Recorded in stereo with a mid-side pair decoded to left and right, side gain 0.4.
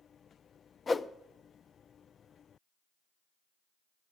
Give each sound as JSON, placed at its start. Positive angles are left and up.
{"t": 0.9, "sound": "a whoosh", "azimuth_deg": 35, "distance_m": 0.7}